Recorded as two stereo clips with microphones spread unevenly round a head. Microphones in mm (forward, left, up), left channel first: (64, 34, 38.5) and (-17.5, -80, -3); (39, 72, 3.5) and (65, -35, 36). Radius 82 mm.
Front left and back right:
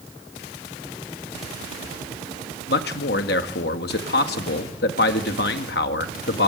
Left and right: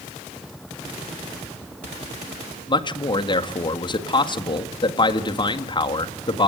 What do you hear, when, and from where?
2.7 s a man speaking: 55° left, 1.8 m